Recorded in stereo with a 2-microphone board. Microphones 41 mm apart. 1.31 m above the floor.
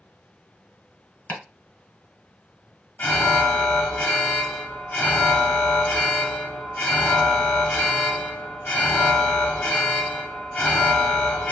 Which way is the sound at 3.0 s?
40° left (ahead or behind).